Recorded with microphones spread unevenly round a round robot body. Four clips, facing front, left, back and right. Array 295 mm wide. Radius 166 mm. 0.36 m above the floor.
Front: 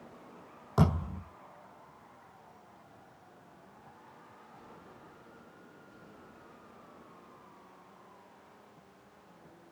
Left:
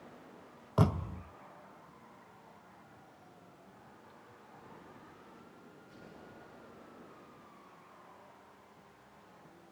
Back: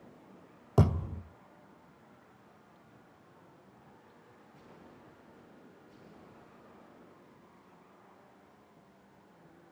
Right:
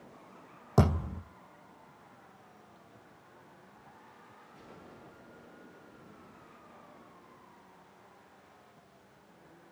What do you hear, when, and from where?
0.8 s a thud: 140° right, 5 m